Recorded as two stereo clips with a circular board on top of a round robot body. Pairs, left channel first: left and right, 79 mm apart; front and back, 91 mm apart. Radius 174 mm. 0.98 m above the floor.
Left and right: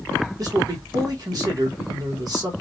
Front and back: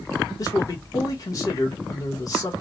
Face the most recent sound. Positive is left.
turn(degrees=-50)